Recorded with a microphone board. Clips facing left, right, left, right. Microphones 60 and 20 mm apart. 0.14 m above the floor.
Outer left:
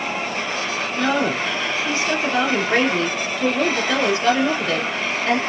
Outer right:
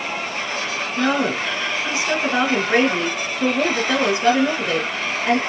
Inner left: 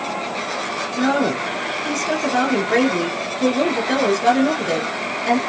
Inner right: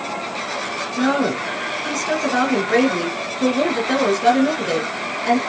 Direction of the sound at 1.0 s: 20° right (ahead or behind).